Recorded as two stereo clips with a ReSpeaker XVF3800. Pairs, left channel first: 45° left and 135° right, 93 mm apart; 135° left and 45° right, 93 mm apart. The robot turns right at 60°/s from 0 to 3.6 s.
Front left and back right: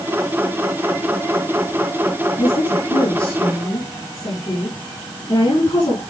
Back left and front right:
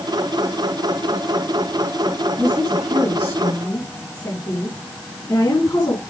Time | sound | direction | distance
2.4 | a woman speaking | 10° left | 5 m